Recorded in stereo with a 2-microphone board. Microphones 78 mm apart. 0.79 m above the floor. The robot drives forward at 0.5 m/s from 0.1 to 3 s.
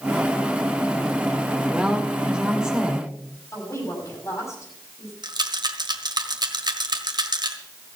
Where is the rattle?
70° right (ahead or behind), 1.4 m.